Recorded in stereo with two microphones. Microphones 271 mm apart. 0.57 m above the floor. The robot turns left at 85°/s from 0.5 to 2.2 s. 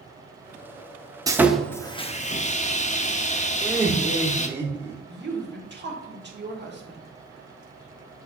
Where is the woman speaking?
40° right (ahead or behind), 1.3 m.